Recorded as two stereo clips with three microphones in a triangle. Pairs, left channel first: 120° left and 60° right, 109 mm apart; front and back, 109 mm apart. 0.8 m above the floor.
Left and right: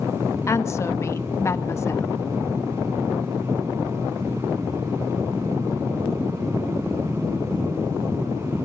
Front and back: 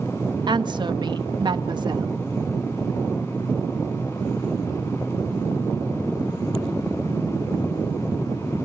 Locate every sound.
0.5 s a woman speaking: 170° left, 1.0 m